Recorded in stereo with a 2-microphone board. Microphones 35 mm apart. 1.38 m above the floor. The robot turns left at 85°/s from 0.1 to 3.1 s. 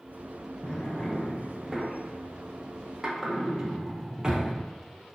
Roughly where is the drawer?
Left.